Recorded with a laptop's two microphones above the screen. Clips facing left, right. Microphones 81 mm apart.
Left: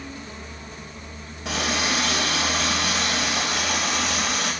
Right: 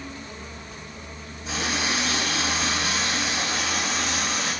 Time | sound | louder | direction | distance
1.4 | a running tap | left 2 dB | 65° left (ahead or behind) | 3 m